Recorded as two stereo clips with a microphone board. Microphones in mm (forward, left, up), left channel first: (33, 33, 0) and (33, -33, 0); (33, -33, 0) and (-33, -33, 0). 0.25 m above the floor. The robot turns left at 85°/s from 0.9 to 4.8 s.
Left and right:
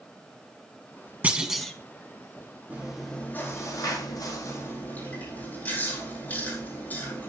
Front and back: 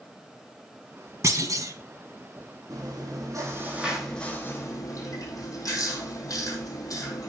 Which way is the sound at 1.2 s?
150° right.